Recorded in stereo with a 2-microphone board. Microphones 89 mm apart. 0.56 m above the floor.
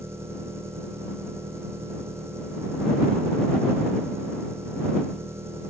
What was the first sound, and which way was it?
An engine running, 30° right (ahead or behind).